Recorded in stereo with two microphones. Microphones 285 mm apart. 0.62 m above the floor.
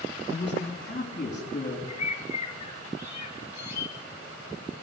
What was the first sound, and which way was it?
A man speaking, 35° left (ahead or behind).